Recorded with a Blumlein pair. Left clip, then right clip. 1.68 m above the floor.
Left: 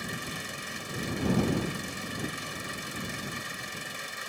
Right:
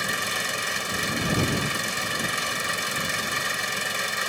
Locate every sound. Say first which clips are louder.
0.0 s an engine running: right 10 dB; 30° right